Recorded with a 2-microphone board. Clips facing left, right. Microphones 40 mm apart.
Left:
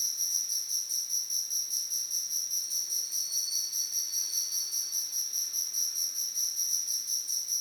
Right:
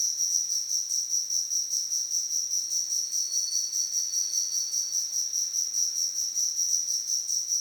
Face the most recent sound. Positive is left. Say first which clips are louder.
# right 4 dB
turn(degrees=10)  # may be behind; listen again after turning